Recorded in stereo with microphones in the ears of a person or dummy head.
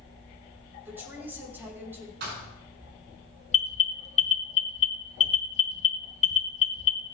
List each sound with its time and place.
0.8 s a woman speaking: 10° right (ahead or behind), 6 m
2.2 s a thud: 60° right (ahead or behind), 6.5 m
3.5 s an alarm: 40° left (ahead or behind), 1.2 m